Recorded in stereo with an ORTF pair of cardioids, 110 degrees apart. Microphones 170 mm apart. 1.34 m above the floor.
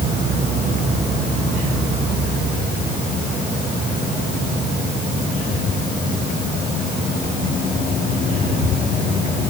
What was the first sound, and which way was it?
Only background noise.